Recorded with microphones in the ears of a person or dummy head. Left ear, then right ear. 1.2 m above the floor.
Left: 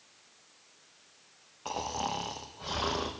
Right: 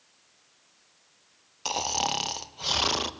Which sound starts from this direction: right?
Snoring, at 1.6 s.